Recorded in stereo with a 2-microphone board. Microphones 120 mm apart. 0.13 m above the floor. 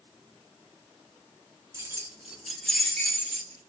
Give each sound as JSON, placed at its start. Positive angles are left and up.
{"t": 1.7, "sound": "keys jangling", "side_deg": -30, "distance_m": 0.8}